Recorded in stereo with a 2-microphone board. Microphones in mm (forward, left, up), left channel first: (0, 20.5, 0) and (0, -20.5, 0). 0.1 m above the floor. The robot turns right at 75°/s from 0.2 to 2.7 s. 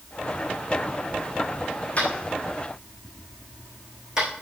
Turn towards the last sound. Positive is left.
turn(degrees=-15)  # may be behind; listen again after turning